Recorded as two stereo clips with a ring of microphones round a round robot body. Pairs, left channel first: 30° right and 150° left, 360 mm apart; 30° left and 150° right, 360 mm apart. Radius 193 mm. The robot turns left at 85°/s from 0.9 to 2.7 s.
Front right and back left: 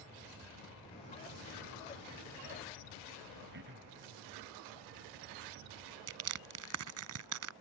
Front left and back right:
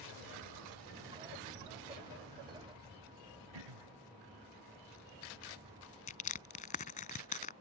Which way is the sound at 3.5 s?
150° right.